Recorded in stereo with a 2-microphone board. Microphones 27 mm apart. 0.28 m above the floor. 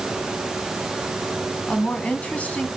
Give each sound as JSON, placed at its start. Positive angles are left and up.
{"t": 1.7, "sound": "a woman speaking", "side_deg": 60, "distance_m": 2.5}